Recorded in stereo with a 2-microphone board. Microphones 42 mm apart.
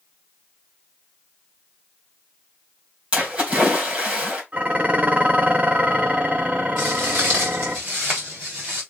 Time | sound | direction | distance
3.1 | a splash | 30° right (ahead or behind) | 3.5 m
4.5 | dishes clattering | 40° right (ahead or behind) | 0.8 m
6.8 | footsteps | 55° right (ahead or behind) | 2.5 m